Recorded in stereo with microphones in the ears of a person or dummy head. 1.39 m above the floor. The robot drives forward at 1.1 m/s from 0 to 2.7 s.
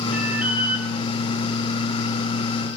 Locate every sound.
0.1 s an alarm: 5° right (ahead or behind), 5 m; by 0.9 s 10° right (ahead or behind), 4 m